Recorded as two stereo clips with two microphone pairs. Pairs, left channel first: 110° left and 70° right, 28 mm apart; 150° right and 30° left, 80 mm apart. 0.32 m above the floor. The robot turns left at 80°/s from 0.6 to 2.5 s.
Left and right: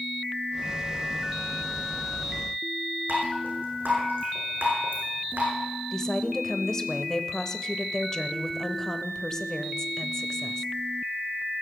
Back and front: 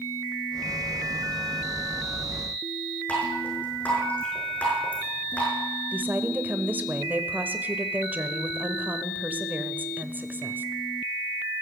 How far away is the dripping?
About 6.5 m.